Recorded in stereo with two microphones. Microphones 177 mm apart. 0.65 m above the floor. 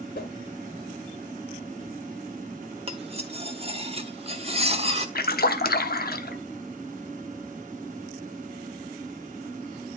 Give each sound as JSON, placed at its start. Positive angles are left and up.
{"t": 0.1, "sound": "a whoosh", "side_deg": 65, "distance_m": 1.3}
{"t": 2.9, "sound": "cutlery clinking", "side_deg": -35, "distance_m": 1.0}
{"t": 5.2, "sound": "a splash", "side_deg": 60, "distance_m": 0.8}